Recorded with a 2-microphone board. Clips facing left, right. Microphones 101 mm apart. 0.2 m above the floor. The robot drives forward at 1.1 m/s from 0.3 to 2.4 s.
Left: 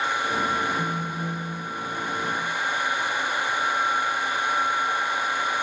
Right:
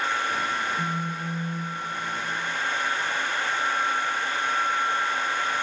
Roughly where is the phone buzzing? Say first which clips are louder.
Left 1 dB; right.